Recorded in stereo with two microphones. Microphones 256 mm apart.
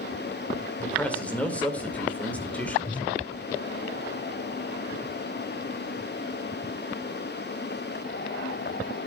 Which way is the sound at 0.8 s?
5° left (ahead or behind).